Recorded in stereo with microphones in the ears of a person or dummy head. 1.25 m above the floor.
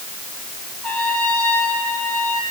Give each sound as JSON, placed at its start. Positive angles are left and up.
{"t": 0.8, "sound": "a trumpet", "side_deg": 10, "distance_m": 6.0}